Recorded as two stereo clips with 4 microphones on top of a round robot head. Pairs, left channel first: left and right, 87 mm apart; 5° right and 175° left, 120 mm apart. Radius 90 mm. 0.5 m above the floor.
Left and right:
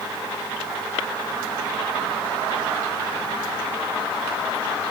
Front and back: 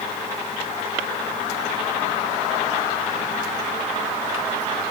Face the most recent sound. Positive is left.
No sound to turn to.